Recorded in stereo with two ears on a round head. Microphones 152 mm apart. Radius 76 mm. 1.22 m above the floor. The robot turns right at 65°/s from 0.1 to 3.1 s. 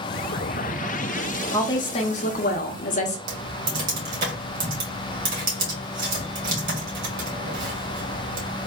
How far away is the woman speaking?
About 0.7 m.